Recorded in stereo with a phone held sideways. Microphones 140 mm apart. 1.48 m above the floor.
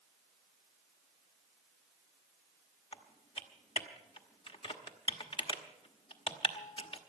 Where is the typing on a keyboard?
40° left (ahead or behind), 1.1 m.